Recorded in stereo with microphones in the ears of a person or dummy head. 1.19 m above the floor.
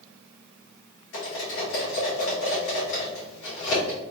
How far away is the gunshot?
I don't hear a gunshot.